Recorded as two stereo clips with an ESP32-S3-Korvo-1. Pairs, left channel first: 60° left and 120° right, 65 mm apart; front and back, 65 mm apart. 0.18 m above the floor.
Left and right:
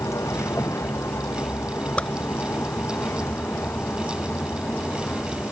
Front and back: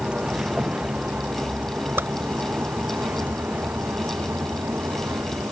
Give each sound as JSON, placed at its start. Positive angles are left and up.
{"t": 0.0, "sound": "a vehicle", "azimuth_deg": 105}
{"t": 2.0, "sound": "a whoosh", "azimuth_deg": 130}